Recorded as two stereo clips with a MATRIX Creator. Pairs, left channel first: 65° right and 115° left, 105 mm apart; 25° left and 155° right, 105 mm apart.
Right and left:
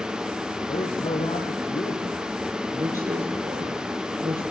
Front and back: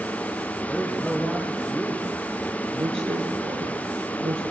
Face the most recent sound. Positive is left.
turn(degrees=150)